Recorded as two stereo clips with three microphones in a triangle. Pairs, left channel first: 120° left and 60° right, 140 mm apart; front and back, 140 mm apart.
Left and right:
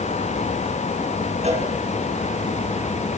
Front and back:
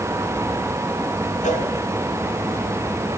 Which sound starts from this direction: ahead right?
A cowbell, at 1.4 s.